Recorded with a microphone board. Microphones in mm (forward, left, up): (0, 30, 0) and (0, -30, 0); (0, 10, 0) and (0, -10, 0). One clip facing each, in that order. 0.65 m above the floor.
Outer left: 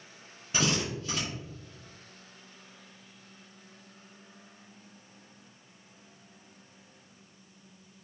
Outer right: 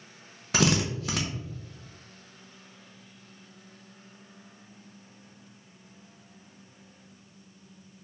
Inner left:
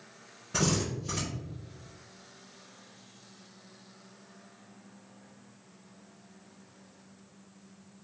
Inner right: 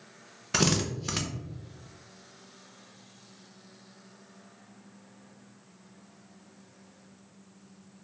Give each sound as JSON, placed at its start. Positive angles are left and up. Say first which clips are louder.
{"t": 0.5, "sound": "a drill", "louder": "outer right 5 dB, inner right 3 dB", "side_deg": -80, "distance_m": 0.6}